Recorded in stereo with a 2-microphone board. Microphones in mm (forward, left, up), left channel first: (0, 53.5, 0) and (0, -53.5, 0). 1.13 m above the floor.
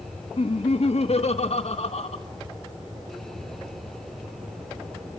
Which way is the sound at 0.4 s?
75° left (ahead or behind).